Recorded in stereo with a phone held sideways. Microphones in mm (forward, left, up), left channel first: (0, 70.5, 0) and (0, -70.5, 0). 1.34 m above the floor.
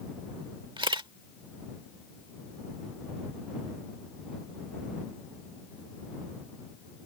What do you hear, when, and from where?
0.8 s a camera shutter: 35° right (ahead or behind)